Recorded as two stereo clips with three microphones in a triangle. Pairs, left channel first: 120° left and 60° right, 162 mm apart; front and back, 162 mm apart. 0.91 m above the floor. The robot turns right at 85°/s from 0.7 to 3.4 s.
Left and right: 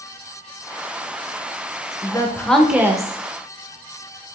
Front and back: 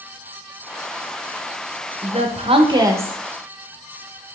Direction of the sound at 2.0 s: 160° left.